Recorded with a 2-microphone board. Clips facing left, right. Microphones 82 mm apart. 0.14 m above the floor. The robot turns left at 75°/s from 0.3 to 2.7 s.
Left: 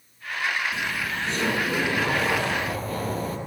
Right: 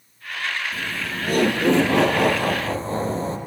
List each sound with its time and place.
0.7 s laughter: straight ahead, 5 m; by 3.4 s 150° right, 5 m